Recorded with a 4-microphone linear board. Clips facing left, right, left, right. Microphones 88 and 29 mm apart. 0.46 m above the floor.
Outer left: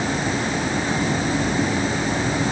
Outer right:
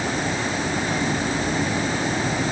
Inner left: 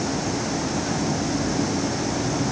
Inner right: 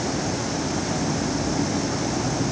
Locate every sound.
Only background noise.